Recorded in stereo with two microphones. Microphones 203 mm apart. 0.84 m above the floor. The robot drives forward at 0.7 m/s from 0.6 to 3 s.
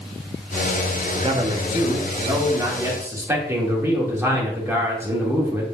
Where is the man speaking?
30° right (ahead or behind), 1.0 m; by 5.6 s 15° right (ahead or behind), 2 m.